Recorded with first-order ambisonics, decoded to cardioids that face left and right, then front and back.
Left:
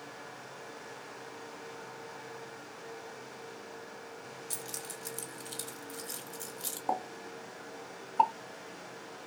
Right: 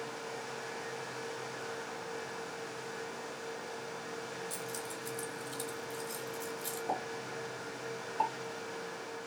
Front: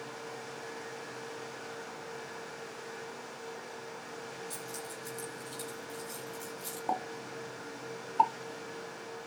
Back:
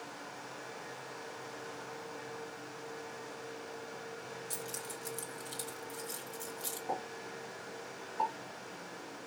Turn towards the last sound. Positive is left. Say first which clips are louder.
# left 4 dB, front 6 dB
turn(degrees=40)